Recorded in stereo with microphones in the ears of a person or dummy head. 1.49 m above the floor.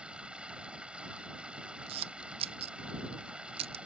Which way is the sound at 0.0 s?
Centre (ahead or behind).